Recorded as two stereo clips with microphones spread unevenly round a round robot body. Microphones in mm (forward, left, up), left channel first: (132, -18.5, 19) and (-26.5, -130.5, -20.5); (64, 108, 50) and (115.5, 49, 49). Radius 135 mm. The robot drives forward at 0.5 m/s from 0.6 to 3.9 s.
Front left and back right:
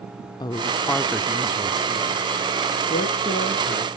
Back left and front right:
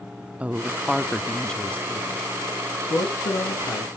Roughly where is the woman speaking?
Ahead right.